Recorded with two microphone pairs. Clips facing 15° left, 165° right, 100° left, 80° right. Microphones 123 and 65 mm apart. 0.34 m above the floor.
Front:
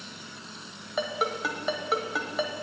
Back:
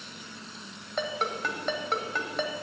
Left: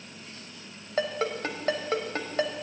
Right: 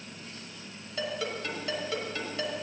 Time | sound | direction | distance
1.0 | a ringtone | 100° left | 1.3 m